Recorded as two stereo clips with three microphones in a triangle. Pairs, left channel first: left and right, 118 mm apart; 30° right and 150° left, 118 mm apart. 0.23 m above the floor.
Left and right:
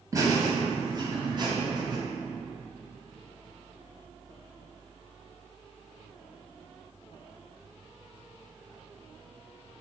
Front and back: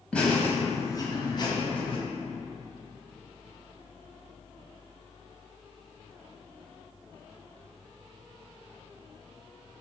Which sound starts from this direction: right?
Laughter, at 0.1 s.